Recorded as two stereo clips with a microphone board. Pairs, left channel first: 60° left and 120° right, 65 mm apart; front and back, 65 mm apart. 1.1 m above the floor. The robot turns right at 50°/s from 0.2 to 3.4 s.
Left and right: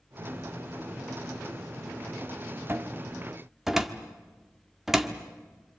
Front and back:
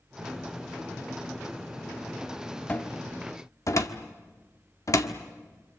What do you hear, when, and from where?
2.7 s a cupboard door: 70° right, 1.4 m; by 5.2 s 35° right, 1.4 m